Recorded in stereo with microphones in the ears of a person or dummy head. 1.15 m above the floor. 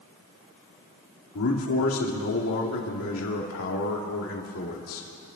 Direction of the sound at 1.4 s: 75° left (ahead or behind).